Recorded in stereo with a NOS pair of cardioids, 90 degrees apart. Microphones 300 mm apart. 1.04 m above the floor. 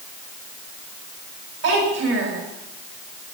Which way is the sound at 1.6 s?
55° right.